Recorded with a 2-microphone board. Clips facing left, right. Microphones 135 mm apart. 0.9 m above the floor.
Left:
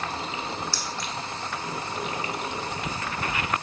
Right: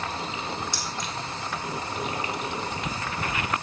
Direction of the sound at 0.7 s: 20° right (ahead or behind).